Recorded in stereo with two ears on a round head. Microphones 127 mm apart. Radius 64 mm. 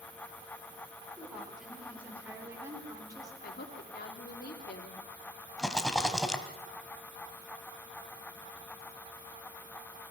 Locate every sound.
1.2 s a woman speaking: centre (ahead or behind), 5 m; by 3.3 s 30° right (ahead or behind), 4 m
3.4 s a woman speaking: 75° left (ahead or behind), 3 m
5.6 s a rattle: 5° left (ahead or behind), 1.7 m